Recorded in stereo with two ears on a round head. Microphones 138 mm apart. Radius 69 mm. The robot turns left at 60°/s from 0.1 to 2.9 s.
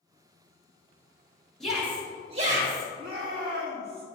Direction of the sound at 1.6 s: 5° left.